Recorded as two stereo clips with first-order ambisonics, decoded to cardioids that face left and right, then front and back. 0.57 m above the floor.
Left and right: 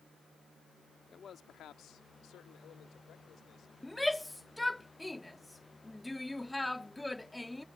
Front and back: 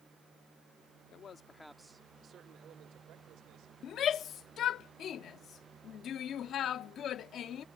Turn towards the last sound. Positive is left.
turn(degrees=5)